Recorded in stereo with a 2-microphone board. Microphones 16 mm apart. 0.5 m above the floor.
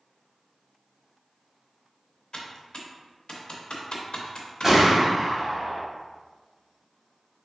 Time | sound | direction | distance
2.3 | typing on a keyboard | 65° left (ahead or behind) | 0.5 m
4.6 | a gunshot | 15° right (ahead or behind) | 1.3 m